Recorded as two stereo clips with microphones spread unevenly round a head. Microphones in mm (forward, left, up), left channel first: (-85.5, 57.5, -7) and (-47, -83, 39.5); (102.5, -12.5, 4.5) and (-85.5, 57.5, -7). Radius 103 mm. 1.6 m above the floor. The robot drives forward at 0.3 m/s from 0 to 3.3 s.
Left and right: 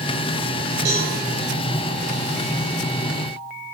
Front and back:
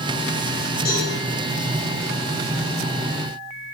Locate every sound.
0.8 s a cowbell: 70° right, 8 m